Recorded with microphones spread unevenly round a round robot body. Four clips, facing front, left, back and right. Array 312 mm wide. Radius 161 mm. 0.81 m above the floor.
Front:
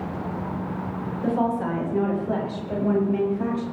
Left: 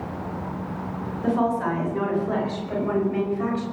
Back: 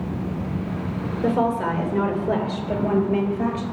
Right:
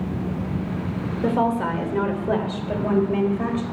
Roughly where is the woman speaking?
Behind right.